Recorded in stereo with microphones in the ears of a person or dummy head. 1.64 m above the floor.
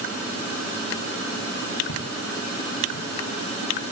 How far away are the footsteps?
About 5 m.